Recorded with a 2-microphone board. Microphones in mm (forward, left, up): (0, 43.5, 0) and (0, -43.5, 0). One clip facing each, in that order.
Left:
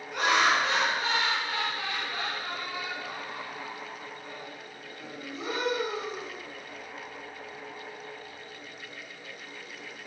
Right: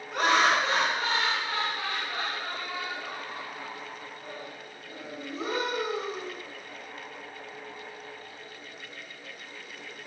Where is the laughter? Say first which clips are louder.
Right 1 dB; 50° right (ahead or behind), 3 m.